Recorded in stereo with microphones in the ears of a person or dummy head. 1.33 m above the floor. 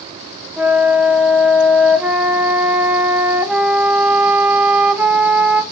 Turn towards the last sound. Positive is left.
turn(degrees=-5)  # may be behind; listen again after turning